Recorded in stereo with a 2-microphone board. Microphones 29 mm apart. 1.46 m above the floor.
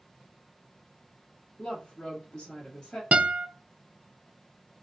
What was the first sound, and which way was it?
A woman speaking, 25° left (ahead or behind).